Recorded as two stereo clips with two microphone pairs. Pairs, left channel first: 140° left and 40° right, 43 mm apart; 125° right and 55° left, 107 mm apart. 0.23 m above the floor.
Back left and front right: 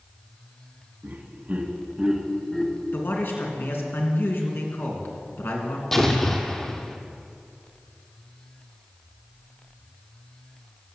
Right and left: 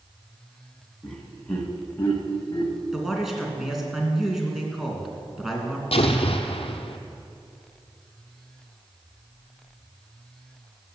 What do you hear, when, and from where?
1.0 s laughter: 35° right, 1.8 m; by 2.8 s 155° right, 1.3 m
2.9 s a man speaking: 145° left, 2.5 m
5.9 s an explosion: 140° right, 1.1 m